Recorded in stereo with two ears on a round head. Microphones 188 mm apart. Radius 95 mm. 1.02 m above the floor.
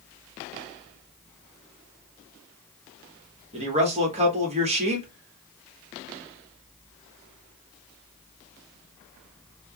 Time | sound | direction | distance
3.5 | a man speaking | 30° right (ahead or behind) | 1.3 m